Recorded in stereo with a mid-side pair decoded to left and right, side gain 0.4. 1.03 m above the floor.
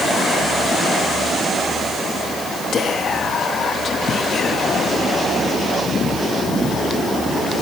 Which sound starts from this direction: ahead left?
Whispering, at 2.7 s.